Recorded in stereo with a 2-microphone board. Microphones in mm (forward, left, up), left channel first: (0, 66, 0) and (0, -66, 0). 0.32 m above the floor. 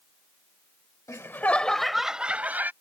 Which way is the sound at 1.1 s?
25° left (ahead or behind).